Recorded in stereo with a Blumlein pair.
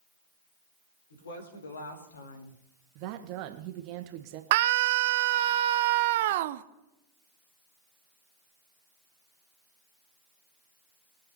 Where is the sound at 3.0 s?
45° right, 1.6 m.